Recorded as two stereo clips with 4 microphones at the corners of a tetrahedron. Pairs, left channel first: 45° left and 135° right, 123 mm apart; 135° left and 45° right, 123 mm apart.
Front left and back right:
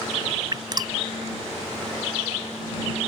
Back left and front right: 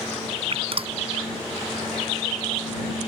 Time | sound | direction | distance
0.5 | dripping | 80° right | ?